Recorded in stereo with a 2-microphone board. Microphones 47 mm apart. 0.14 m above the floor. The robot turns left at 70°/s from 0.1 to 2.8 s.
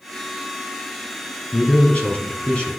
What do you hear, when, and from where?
1.5 s a man speaking: 125° left, 1.6 m; by 2.7 s 45° left, 1.6 m